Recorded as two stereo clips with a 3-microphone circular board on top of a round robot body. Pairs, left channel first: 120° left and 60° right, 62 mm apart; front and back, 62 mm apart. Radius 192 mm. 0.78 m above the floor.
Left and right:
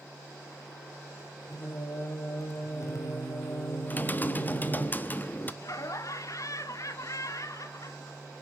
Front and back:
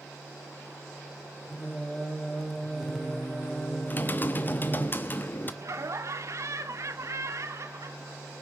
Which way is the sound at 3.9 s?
60° left.